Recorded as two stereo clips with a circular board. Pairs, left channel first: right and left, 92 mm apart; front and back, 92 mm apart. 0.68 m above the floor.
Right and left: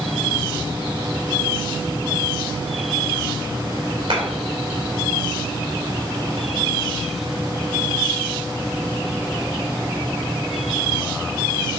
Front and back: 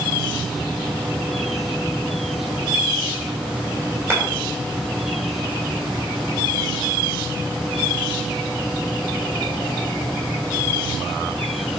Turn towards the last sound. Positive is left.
turn(degrees=115)